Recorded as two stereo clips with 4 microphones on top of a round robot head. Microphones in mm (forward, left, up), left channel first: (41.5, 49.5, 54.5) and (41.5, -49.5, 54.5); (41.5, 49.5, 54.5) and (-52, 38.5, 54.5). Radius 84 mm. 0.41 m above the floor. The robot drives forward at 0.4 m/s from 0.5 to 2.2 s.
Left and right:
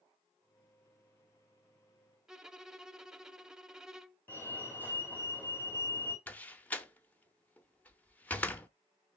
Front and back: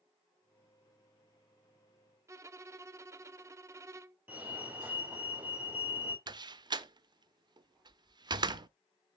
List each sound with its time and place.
2.3 s a violin: 170° right, 0.5 m
4.3 s a fire alarm: 135° left, 2 m
6.3 s a door slam: 160° left, 0.7 m